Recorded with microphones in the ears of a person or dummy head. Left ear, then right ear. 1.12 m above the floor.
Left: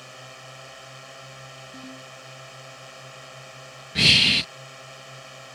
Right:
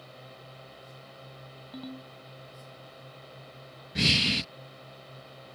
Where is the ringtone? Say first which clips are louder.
Left 3 dB; 65° right (ahead or behind).